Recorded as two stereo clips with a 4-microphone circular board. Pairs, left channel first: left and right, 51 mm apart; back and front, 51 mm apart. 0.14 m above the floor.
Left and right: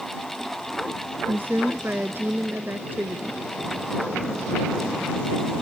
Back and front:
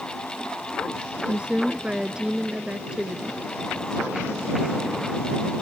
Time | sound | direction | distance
1.3 | a woman speaking | 65° right | ?